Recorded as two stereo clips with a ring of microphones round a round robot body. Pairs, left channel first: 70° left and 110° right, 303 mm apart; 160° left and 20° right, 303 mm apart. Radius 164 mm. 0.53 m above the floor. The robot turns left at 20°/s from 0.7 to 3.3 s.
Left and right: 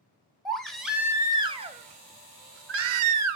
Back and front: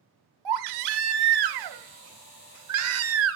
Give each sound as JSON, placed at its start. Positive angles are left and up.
{"t": 0.5, "sound": "a baby crying", "azimuth_deg": -20, "distance_m": 0.9}